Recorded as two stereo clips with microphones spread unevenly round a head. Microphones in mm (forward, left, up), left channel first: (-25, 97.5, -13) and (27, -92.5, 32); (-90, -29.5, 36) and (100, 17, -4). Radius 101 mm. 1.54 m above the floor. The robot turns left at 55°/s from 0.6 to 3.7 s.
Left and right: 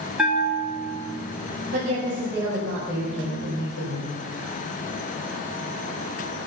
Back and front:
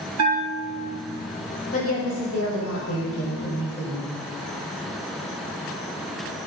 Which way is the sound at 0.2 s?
10° left.